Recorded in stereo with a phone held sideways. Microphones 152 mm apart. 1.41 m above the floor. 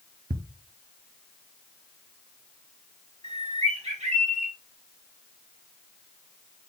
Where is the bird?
45° right (ahead or behind), 1.4 m.